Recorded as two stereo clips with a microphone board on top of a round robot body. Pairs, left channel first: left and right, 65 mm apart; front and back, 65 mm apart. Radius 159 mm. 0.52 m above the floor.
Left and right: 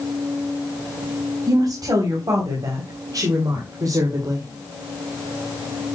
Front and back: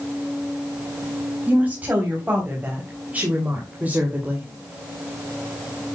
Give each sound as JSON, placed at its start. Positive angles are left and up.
{"t": 1.5, "sound": "a woman speaking", "azimuth_deg": -115, "distance_m": 4.0}